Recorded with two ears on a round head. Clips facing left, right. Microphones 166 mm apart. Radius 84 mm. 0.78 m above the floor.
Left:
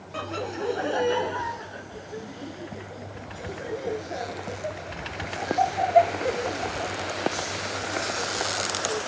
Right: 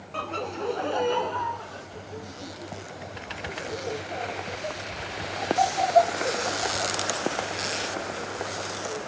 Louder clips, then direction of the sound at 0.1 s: Left 1 dB; 5° left (ahead or behind).